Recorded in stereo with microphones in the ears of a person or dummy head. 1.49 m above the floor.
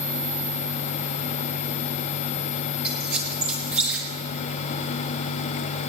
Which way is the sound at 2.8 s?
15° right (ahead or behind).